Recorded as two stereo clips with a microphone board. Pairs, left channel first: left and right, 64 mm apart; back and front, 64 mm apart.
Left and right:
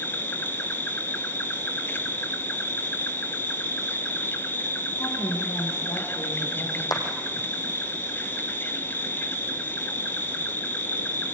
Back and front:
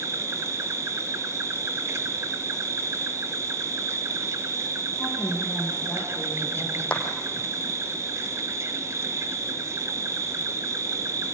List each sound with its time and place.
0.0 s an insect: 35° left, 1.1 m
4.9 s a woman speaking: 100° left, 7 m
6.9 s a clap: 110° left, 3.5 m